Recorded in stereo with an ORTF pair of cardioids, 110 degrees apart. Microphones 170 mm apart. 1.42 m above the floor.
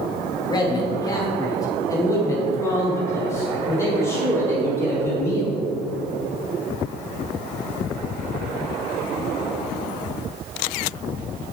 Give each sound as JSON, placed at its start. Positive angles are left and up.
{"t": 0.5, "sound": "a man speaking", "azimuth_deg": 25, "distance_m": 2.0}